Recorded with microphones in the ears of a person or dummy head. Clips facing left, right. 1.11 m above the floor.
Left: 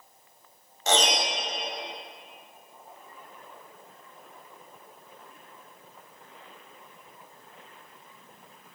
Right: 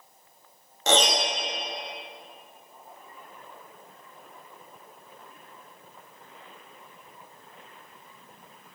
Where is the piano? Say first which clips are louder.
Right 2 dB; 65° right (ahead or behind), 1.7 m.